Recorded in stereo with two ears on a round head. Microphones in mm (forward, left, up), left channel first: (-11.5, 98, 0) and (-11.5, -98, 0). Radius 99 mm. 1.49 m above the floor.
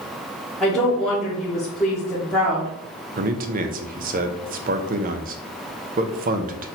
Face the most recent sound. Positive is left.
turn(degrees=-40)  # may be behind; listen again after turning